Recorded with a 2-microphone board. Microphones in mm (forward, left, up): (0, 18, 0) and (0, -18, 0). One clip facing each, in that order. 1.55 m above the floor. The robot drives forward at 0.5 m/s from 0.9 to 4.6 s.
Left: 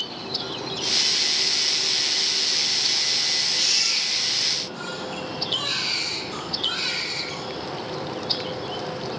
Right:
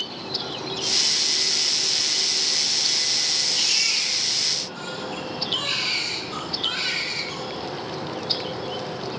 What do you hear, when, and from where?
3.5 s a baby crying: 25° right (ahead or behind), 10 m